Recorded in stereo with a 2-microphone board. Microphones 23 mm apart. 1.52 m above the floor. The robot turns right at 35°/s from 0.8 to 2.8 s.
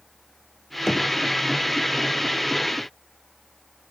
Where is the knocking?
20° left (ahead or behind), 0.7 m; by 1.1 s 30° left (ahead or behind), 0.7 m.